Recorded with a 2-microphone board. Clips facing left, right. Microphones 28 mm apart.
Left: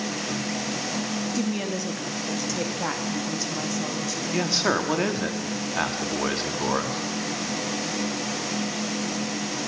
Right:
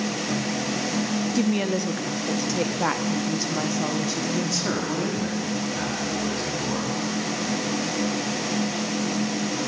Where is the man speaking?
45° left (ahead or behind), 1.1 m.